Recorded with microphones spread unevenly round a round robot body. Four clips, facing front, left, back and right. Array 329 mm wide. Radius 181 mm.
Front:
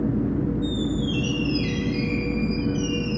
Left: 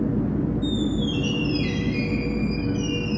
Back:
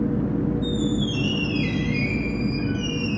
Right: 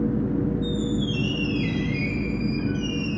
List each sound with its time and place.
0.6 s a squeak: 100° left, 1.2 m